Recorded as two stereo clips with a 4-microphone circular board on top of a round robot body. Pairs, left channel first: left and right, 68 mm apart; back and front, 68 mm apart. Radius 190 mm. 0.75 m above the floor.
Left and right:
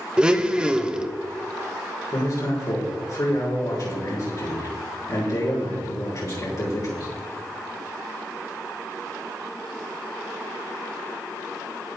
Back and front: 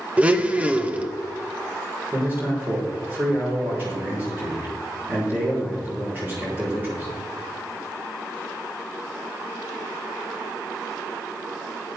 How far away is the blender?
About 1.1 m.